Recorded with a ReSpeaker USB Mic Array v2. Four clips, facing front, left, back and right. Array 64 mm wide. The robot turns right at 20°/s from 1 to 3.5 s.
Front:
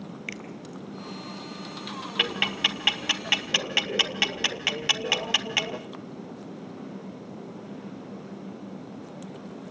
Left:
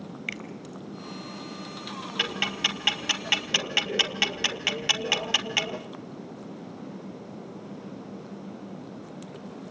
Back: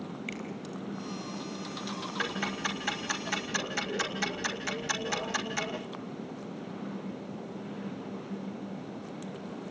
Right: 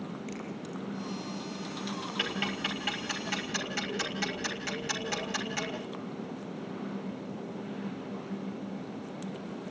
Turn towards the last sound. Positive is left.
turn(degrees=35)